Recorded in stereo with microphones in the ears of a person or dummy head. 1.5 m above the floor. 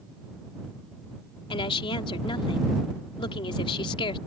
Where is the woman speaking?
25° left (ahead or behind).